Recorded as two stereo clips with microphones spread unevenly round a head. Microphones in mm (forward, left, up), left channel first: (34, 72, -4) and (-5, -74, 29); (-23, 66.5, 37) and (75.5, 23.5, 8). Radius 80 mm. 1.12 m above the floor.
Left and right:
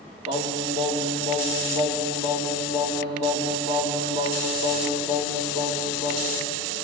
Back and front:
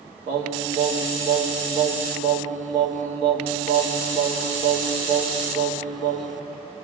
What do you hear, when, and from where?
0.3 s singing: 40° right, 2.5 m